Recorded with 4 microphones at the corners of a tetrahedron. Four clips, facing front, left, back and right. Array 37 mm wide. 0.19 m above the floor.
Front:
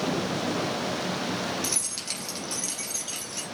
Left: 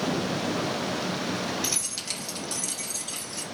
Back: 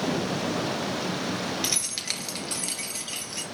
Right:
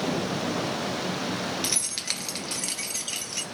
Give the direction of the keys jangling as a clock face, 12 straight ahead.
5 o'clock.